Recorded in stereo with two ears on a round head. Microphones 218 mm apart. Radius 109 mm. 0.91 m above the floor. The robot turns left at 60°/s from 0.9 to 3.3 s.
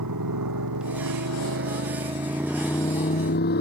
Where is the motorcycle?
80° right; by 3.6 s 45° left (ahead or behind).